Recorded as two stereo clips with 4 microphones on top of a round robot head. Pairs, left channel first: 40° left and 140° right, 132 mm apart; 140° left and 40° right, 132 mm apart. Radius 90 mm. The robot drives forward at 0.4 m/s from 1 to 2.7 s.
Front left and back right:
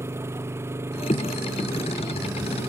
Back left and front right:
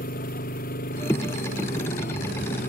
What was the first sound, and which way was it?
An engine running, 150° left.